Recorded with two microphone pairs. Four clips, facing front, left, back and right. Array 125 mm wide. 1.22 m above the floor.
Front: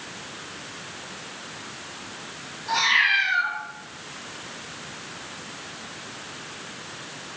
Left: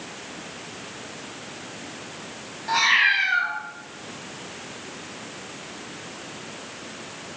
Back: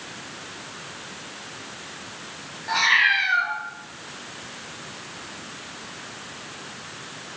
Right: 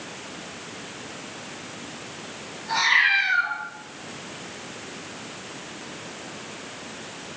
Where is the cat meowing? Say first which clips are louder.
Left 1 dB, back 1 dB; 140° left, 2.0 m.